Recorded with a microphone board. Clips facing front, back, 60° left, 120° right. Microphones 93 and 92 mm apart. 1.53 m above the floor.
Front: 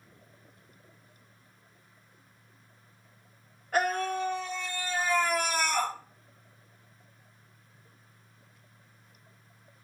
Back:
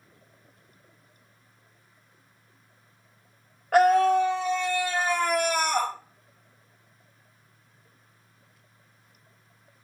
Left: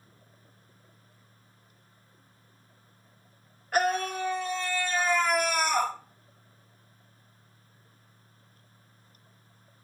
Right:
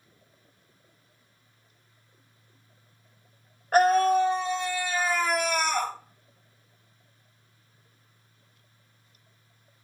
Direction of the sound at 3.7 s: 165° right.